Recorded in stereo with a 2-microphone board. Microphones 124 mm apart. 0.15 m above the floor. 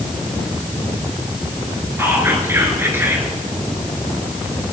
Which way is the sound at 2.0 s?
20° right (ahead or behind).